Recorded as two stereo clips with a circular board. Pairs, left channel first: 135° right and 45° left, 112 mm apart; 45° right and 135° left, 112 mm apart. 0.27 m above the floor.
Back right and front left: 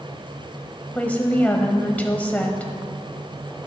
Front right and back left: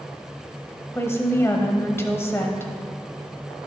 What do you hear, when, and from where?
0.9 s a woman speaking: 75° right, 1.0 m